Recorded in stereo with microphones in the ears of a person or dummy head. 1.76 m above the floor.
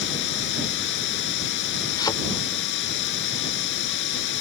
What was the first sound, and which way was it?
Running water, 65° left (ahead or behind).